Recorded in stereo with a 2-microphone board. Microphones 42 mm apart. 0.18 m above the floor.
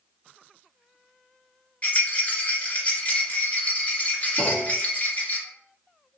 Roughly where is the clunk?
Centre.